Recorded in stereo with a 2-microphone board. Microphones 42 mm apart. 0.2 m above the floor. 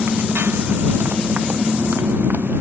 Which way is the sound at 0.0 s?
55° right (ahead or behind).